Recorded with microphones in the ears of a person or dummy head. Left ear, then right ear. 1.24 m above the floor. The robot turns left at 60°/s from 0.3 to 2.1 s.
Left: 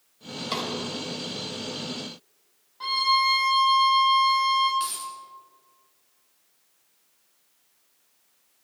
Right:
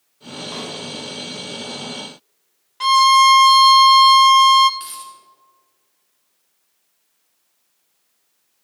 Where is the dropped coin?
5° left (ahead or behind), 2 m.